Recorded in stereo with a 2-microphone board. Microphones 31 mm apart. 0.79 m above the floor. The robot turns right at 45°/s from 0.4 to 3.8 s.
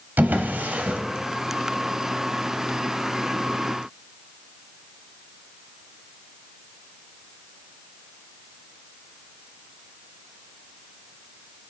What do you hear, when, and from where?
0.2 s a drawer: 85° right, 0.7 m; by 1.0 s 55° right (ahead or behind), 0.7 m